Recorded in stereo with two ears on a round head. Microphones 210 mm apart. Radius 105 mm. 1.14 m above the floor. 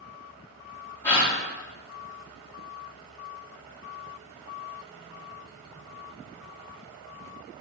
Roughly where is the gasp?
Centre.